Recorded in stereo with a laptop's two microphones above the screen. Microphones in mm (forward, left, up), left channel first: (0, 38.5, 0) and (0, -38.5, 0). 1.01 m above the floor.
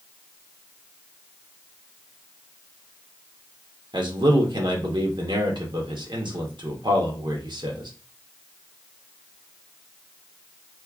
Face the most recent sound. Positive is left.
turn(degrees=-80)